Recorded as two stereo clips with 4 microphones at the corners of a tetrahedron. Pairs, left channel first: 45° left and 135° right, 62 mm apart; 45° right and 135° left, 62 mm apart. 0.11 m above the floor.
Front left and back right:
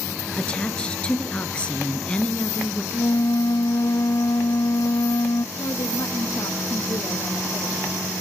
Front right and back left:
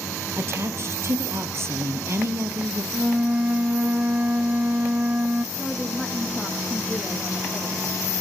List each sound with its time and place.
0.4 s a woman speaking: 115° left, 2 m
2.9 s a flute: 65° left, 0.6 m
5.5 s a woman speaking: 35° left, 6.5 m